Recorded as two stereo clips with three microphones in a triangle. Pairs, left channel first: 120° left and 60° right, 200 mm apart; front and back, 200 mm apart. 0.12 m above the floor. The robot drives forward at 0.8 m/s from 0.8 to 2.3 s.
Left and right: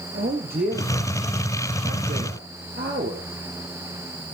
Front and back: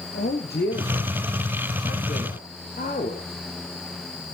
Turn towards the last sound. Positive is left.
turn(degrees=-40)